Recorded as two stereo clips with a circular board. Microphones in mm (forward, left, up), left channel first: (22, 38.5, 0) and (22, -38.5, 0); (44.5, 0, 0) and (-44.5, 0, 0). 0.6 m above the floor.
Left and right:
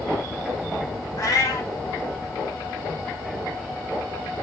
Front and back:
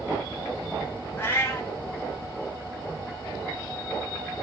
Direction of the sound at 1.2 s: 60° left.